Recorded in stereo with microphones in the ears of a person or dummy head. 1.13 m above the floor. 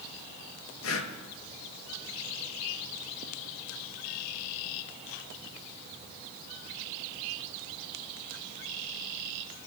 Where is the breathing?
75° left (ahead or behind), 1.1 m.